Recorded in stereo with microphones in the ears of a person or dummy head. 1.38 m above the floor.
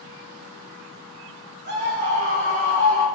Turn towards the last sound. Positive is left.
turn(degrees=-55)  # may be behind; listen again after turning